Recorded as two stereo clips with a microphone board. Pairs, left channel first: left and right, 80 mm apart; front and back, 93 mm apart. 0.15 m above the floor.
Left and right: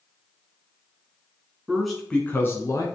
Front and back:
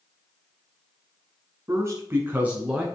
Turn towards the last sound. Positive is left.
turn(degrees=100)